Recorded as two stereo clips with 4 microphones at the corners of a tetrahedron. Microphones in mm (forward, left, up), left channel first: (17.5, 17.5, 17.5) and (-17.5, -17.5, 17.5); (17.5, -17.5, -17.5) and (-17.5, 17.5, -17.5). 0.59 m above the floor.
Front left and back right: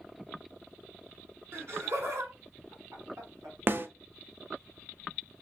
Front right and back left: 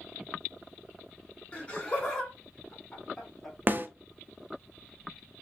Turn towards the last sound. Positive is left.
turn(degrees=-175)